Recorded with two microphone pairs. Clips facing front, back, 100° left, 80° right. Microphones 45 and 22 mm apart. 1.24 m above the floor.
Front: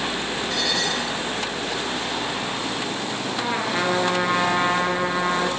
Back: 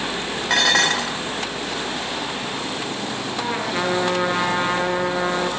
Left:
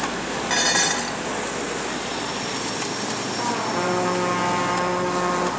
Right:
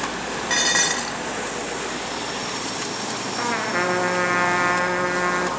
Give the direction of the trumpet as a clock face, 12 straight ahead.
3 o'clock.